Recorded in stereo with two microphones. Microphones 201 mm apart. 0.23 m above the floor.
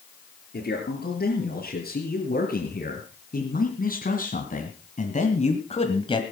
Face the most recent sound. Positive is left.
turn(degrees=25)  # may be behind; listen again after turning